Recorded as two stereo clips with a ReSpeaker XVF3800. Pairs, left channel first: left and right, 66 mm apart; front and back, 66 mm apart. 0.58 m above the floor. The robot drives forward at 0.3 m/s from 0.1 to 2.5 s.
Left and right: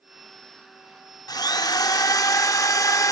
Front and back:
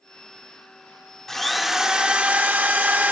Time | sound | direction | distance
1.3 | a drill | 85° left | 0.6 m